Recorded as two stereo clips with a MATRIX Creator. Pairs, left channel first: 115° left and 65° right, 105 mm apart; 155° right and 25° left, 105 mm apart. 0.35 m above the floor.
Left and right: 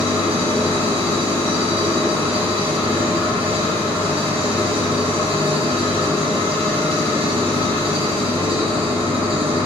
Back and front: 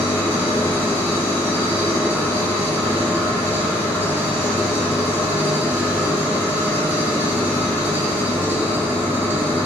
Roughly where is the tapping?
I don't hear tapping.